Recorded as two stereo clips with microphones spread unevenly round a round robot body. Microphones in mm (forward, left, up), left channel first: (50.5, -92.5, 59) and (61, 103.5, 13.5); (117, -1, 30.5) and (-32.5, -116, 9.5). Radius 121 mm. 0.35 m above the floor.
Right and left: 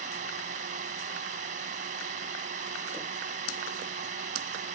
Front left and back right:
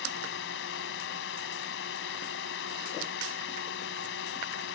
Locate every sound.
0.0 s a drone: 50° left